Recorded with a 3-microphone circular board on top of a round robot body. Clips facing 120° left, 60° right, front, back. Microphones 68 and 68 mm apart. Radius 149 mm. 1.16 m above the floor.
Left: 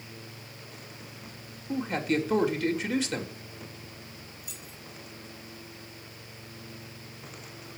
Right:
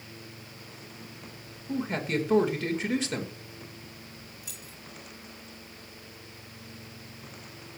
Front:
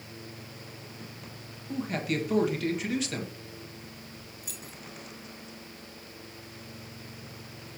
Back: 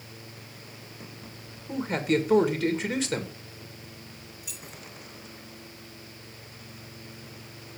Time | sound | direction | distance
1.7 | a man speaking | 125° right | 2 m
4.4 | keys jangling | 50° right | 2 m